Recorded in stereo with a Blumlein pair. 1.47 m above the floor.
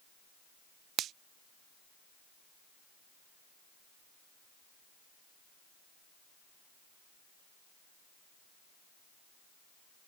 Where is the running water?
I don't hear running water.